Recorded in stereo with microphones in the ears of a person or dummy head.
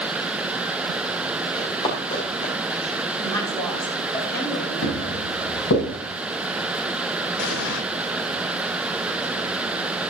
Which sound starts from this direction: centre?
A woman speaking, at 3.2 s.